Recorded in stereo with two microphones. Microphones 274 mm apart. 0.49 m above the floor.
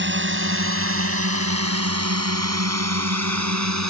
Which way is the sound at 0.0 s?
40° right (ahead or behind).